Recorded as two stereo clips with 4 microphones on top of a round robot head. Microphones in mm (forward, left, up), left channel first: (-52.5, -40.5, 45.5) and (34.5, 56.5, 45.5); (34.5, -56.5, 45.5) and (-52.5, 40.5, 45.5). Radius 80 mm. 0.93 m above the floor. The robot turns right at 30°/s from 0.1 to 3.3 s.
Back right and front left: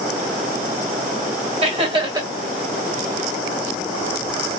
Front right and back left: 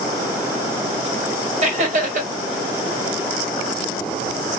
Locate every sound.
1.6 s laughter: 90° left, 2.0 m; by 2.3 s 110° left, 2.0 m